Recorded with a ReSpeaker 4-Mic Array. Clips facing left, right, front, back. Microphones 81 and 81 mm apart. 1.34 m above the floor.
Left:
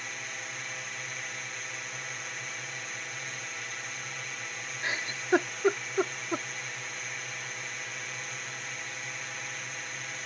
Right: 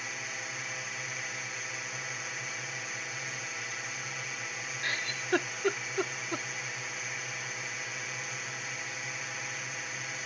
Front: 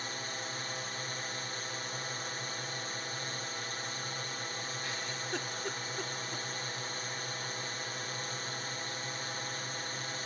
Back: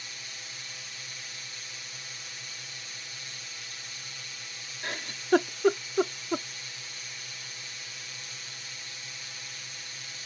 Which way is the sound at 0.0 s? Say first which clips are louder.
Even, front 7 dB; 5° right.